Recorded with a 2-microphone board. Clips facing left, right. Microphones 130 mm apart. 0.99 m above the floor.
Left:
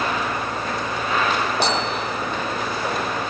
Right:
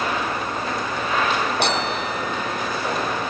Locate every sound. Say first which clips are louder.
1.6 s a bicycle bell: even; 60° right (ahead or behind); by 2.8 s 65° right (ahead or behind)